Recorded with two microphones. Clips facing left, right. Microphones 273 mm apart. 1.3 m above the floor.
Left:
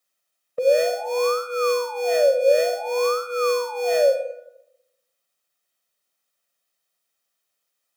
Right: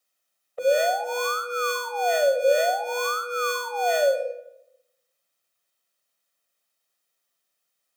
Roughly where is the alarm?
Left.